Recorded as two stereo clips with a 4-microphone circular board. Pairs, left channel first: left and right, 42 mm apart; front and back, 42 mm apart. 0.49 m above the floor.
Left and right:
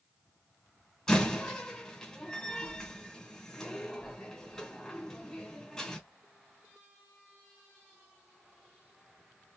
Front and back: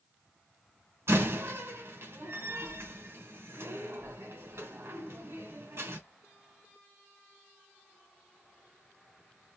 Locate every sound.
1.1 s a door slam: 165° left, 3 m